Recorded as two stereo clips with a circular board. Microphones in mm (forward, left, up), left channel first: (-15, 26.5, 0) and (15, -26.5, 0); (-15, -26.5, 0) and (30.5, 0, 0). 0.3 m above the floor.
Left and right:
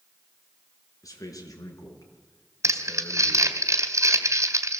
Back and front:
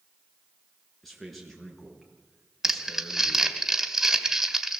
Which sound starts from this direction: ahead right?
Crumpling, at 2.6 s.